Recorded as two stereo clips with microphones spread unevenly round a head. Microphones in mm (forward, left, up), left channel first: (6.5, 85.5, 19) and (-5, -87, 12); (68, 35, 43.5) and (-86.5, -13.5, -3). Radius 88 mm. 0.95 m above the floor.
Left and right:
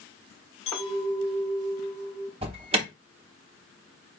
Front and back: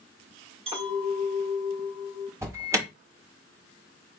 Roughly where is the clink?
Behind left.